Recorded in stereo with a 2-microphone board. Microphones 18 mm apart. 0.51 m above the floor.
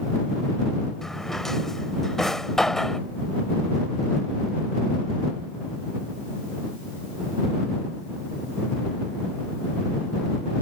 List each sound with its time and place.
1.0 s a drawer: 30° left (ahead or behind)